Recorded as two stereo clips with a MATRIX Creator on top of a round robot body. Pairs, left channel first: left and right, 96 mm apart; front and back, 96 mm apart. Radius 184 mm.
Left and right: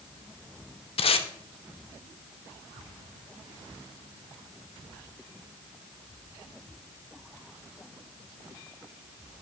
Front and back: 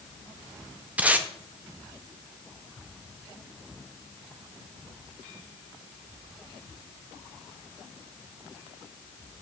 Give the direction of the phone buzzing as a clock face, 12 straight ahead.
I don't hear a phone buzzing.